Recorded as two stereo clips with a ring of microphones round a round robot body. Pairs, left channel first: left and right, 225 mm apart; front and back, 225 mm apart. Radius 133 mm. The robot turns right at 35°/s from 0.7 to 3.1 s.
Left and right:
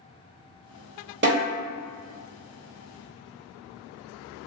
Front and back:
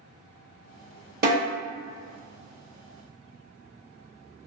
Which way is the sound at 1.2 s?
135° right.